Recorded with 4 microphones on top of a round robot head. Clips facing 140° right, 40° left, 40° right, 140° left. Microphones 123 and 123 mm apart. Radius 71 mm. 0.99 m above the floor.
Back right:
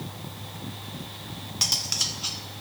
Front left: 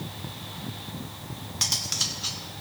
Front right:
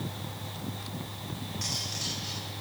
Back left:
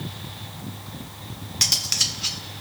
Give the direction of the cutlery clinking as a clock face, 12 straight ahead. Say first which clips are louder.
Even, back left 2 dB; 7 o'clock.